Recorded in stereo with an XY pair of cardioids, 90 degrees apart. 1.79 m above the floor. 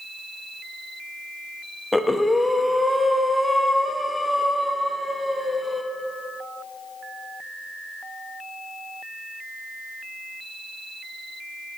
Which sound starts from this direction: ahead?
Breathing, at 1.9 s.